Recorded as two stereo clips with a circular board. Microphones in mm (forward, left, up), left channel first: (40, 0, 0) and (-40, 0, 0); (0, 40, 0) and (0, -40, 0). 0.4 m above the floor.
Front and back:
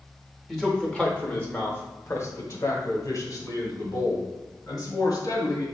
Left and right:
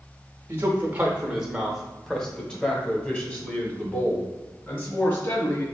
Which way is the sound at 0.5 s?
85° right.